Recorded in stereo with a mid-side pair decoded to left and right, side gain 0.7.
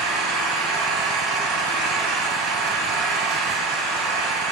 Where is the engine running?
65° right, 1.8 m.